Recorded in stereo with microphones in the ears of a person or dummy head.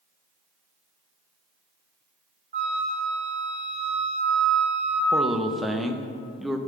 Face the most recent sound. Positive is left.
turn(degrees=-5)  # may be behind; listen again after turning